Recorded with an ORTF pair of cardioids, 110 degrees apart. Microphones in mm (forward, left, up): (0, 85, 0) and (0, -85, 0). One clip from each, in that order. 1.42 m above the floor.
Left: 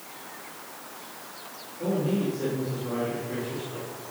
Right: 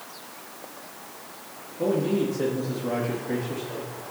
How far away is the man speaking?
About 2.5 m.